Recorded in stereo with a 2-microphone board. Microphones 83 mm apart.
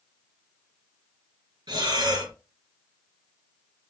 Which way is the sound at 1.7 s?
65° right (ahead or behind).